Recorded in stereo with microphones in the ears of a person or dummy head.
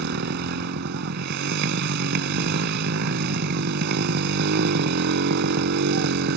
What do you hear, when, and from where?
0.0 s a motorcycle: 65° right (ahead or behind)